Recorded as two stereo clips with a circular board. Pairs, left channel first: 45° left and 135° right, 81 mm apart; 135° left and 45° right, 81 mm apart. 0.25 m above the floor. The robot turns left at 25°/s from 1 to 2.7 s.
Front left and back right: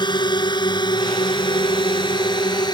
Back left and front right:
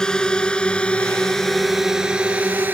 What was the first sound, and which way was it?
A drone, 55° left.